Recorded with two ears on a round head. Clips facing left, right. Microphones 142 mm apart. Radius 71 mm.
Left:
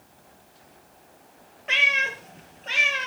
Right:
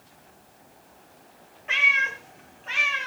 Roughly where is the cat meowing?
Left.